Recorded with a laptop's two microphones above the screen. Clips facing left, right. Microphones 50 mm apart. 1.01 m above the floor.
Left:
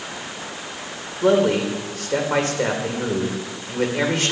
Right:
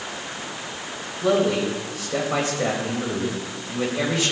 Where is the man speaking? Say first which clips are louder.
Left 3 dB; 55° left (ahead or behind), 4 m.